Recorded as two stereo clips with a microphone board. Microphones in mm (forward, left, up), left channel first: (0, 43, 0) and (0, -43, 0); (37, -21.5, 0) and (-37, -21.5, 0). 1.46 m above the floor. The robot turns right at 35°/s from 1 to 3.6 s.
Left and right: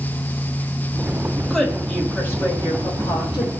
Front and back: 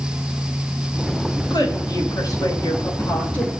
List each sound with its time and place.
1.5 s a woman speaking: straight ahead, 6 m; by 3.5 s 70° left, 6 m